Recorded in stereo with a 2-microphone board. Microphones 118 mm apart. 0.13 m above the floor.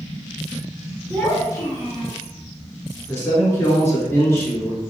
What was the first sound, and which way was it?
A child speaking, 5° left (ahead or behind).